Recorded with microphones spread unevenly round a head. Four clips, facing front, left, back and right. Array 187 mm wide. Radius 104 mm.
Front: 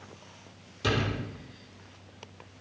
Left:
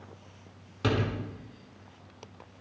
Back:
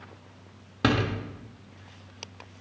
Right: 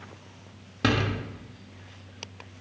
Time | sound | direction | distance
0.8 | a door slam | 150° right | 2 m